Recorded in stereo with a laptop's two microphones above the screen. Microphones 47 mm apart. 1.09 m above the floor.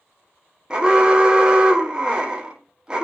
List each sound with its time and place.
0.7 s an alarm: 15° right (ahead or behind), 0.6 m